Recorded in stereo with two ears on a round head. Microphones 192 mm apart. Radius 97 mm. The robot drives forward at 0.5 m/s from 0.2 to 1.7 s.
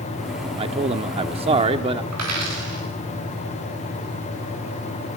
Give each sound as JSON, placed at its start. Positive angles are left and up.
{"t": 0.6, "sound": "a man speaking", "side_deg": -25, "distance_m": 0.9}
{"t": 2.1, "sound": "a dropped coin", "side_deg": -85, "distance_m": 9.5}